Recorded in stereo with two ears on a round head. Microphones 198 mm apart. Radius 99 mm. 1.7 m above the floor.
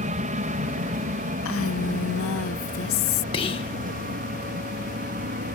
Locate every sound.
0.0 s an aircraft: 35° right (ahead or behind); by 5.6 s 40° right (ahead or behind)
1.4 s a woman speaking: 65° left (ahead or behind)
3.3 s whispering: 25° left (ahead or behind)